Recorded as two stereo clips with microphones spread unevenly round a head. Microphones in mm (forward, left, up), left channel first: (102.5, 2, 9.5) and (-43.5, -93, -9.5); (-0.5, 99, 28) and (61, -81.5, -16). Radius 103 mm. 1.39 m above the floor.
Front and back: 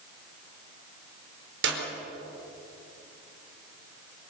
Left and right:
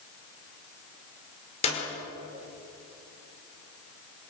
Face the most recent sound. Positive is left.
turn(degrees=170)